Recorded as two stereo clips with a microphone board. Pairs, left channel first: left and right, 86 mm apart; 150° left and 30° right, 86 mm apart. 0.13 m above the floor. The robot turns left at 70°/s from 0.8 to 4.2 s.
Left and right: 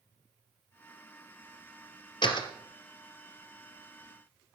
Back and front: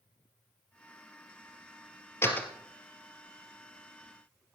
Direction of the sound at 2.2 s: 95° left.